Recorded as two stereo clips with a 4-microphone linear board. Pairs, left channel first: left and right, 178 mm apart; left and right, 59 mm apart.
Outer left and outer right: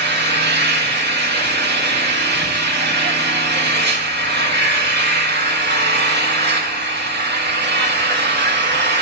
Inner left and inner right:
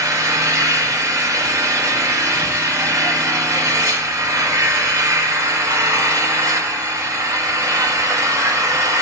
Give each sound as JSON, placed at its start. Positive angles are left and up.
{"t": 0.0, "sound": "an engine running", "side_deg": -70, "distance_m": 1.3}